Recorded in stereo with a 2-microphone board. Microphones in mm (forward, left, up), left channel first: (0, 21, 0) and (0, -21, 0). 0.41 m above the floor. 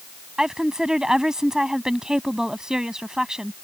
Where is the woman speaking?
15° right (ahead or behind).